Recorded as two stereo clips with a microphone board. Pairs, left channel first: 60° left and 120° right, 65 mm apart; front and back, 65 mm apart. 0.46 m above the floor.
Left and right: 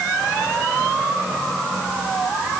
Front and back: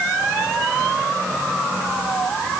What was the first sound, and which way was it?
Only background noise.